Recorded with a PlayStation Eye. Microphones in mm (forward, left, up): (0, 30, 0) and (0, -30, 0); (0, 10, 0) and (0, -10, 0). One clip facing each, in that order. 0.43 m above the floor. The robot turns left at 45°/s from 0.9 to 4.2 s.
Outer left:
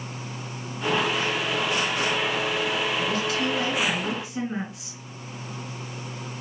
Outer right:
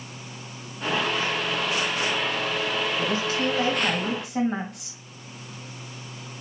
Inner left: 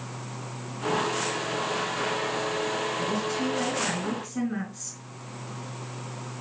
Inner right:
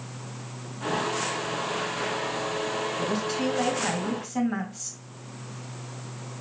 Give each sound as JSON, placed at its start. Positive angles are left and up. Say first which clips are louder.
{"t": 3.0, "sound": "a woman speaking", "louder": "even, inner right 1 dB", "azimuth_deg": -30, "distance_m": 2.5}